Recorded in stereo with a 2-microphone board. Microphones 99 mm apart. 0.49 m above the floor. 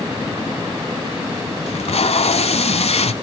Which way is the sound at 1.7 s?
75° left (ahead or behind).